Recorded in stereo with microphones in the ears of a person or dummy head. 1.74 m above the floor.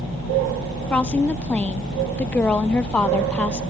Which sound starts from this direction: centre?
A woman speaking, at 0.9 s.